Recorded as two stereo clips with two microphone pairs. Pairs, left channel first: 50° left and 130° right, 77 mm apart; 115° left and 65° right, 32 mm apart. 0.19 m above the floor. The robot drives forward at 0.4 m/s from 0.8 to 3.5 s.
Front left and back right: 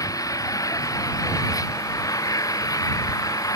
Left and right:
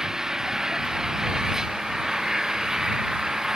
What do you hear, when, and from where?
0.0 s an engine running: 10° left